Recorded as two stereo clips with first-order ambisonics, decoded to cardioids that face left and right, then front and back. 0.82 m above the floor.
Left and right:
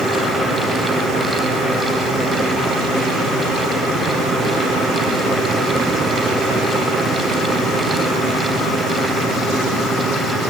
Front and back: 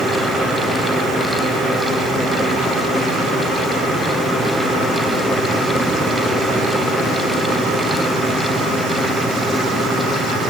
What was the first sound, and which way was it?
Only background noise.